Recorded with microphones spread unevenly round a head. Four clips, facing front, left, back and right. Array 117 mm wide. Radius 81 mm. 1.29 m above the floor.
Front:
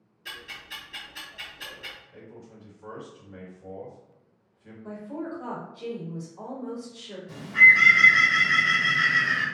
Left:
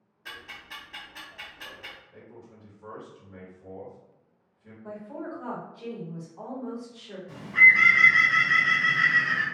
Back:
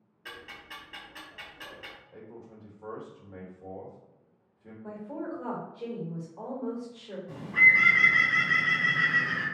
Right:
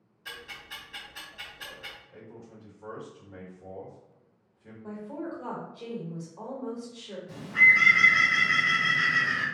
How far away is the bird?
About 1.2 m.